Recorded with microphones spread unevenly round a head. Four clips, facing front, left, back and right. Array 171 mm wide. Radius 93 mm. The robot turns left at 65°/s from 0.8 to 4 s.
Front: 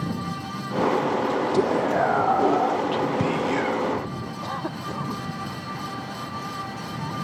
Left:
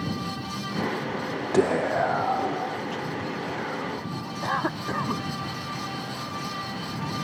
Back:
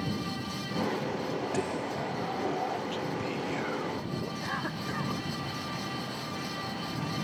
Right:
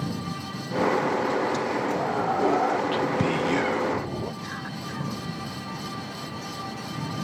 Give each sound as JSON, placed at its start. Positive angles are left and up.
{"t": 1.5, "sound": "whispering", "azimuth_deg": 60}
{"t": 4.4, "sound": "a cough", "azimuth_deg": 65}